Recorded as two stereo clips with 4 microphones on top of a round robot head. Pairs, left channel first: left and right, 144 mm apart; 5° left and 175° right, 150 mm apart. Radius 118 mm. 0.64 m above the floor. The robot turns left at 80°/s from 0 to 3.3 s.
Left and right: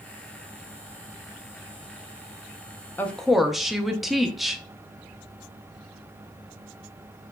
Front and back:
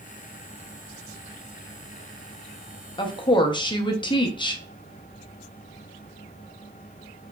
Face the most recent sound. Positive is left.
turn(degrees=0)